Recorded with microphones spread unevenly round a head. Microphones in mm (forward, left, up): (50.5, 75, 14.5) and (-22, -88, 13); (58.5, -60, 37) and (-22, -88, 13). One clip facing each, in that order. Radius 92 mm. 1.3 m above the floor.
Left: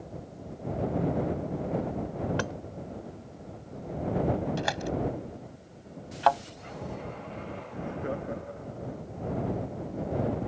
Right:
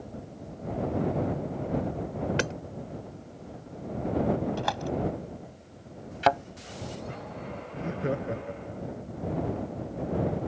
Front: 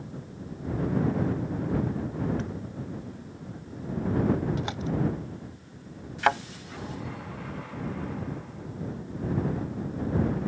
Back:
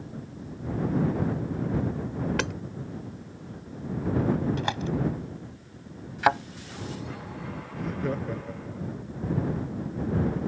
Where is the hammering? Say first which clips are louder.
Right 2 dB, back 5 dB; straight behind.